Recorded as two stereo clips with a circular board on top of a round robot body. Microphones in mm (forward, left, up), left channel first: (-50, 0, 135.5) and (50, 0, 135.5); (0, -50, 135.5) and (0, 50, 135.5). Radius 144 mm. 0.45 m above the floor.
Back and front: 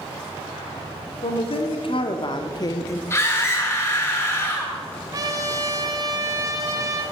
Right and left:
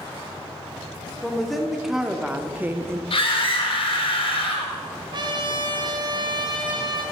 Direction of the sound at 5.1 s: 50° left.